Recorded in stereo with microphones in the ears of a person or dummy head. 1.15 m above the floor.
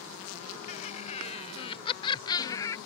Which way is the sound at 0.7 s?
35° left (ahead or behind).